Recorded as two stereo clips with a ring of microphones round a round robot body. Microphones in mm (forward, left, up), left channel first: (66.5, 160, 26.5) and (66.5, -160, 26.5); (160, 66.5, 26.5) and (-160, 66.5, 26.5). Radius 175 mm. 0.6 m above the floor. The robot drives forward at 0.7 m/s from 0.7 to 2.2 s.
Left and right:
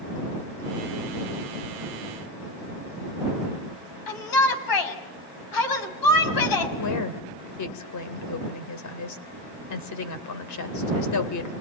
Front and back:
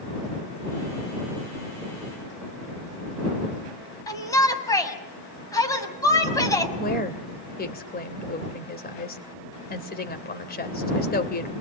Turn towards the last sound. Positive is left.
turn(degrees=60)